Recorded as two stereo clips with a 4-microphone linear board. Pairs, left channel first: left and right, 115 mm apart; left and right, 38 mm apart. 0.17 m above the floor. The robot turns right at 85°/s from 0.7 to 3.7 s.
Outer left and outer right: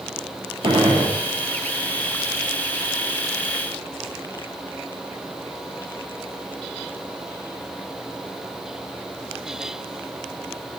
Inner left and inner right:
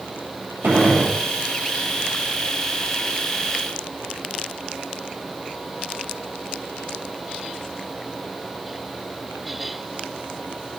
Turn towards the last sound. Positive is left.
turn(degrees=-165)